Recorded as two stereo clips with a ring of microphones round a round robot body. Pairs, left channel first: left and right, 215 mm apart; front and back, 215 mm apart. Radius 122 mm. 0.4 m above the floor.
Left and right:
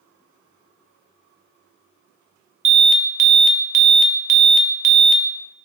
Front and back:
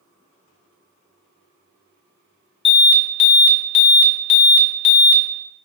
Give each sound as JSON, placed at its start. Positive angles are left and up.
{"t": 2.6, "sound": "an alarm", "azimuth_deg": -50, "distance_m": 0.6}